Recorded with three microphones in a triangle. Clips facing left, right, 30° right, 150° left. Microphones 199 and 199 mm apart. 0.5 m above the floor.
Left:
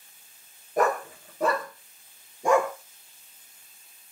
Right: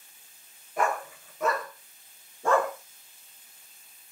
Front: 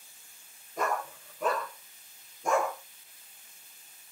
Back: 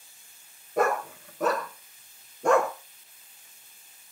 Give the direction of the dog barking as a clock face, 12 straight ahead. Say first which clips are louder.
Left 4 dB, back 7 dB; 7 o'clock.